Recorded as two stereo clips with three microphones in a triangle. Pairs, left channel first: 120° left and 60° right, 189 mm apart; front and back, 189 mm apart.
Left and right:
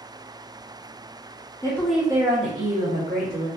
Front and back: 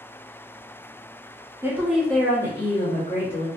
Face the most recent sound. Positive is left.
turn(degrees=-60)